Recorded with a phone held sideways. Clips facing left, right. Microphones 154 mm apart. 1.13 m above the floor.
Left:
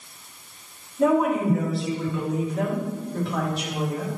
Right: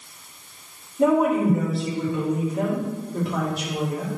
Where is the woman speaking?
5° right (ahead or behind), 3 m.